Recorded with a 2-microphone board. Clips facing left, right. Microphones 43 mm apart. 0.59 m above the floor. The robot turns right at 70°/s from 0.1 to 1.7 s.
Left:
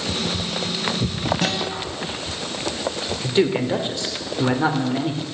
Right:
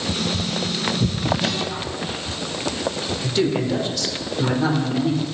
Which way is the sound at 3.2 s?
25° left (ahead or behind).